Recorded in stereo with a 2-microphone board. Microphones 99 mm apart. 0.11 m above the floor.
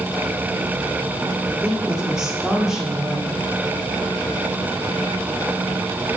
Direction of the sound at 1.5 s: 5° right (ahead or behind).